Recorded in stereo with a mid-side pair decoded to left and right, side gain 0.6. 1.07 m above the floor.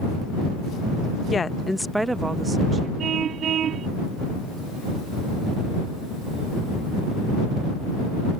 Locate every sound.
1.3 s a woman speaking: 30° left; by 2.9 s 35° right
3.0 s a car horn: 45° right